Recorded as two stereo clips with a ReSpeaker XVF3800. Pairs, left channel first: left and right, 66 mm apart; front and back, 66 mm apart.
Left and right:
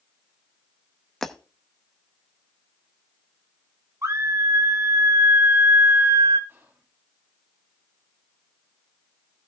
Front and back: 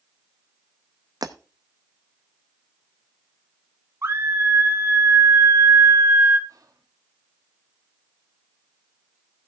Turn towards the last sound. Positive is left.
turn(degrees=-145)